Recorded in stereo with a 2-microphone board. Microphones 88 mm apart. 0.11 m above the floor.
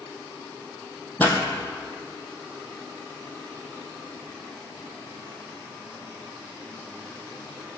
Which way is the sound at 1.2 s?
20° left (ahead or behind).